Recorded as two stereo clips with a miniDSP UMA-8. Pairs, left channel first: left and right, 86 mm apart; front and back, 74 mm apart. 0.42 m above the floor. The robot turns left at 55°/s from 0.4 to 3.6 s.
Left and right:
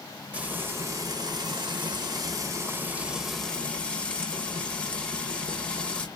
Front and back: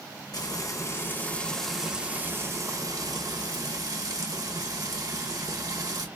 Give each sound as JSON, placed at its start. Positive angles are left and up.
{"t": 0.3, "sound": "frying", "azimuth_deg": -20, "distance_m": 1.1}